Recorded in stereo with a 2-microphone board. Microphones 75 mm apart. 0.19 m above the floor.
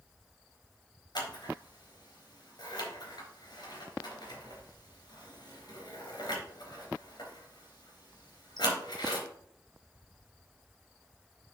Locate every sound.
1.1 s scissors: 65° left (ahead or behind), 3.5 m